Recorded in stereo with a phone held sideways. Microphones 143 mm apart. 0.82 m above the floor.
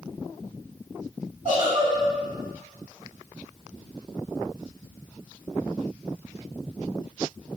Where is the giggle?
55° right (ahead or behind), 1.8 m.